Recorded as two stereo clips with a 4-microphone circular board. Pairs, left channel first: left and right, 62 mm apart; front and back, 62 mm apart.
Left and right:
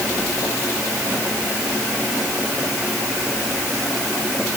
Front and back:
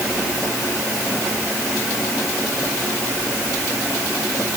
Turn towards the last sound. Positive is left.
No sound to turn to.